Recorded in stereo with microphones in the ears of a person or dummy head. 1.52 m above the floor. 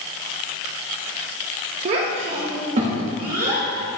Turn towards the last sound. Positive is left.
turn(degrees=-40)  # may be behind; listen again after turning